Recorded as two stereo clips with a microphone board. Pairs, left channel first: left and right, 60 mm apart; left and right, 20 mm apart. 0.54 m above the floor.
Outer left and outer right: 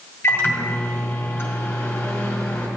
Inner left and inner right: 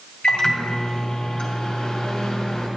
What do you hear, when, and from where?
0.2 s a microwave: 40° left (ahead or behind), 2.5 m